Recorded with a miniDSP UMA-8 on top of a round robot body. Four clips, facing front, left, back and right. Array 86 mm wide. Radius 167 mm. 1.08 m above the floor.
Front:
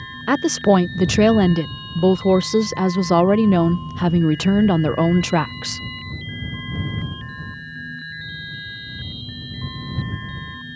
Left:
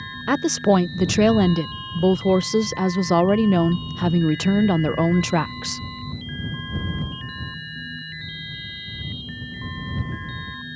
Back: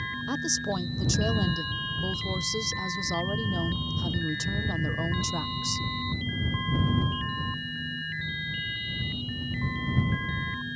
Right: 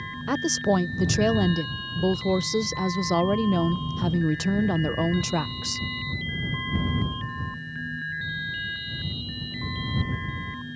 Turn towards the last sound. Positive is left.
turn(degrees=30)